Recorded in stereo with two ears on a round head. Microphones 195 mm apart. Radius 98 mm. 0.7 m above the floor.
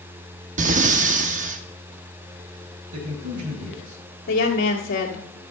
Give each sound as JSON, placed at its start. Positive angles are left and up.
{"t": 0.6, "sound": "breathing", "side_deg": -35, "distance_m": 0.7}
{"t": 2.9, "sound": "a man speaking", "side_deg": -80, "distance_m": 5.0}
{"t": 4.3, "sound": "a woman speaking", "side_deg": 55, "distance_m": 1.7}